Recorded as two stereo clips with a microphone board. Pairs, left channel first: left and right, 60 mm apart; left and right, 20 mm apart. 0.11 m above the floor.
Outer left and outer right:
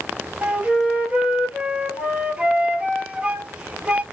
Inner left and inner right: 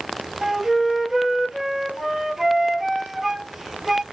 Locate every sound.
0.4 s a flute: 20° right (ahead or behind), 0.8 m